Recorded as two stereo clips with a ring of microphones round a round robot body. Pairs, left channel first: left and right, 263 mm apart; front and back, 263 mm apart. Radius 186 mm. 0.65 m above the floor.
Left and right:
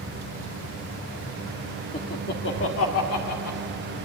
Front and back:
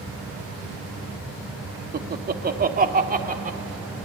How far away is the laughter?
About 1.3 m.